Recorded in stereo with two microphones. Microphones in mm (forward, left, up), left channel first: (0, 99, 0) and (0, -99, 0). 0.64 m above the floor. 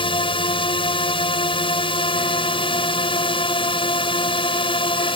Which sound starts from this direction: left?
A drone, at 0.0 s.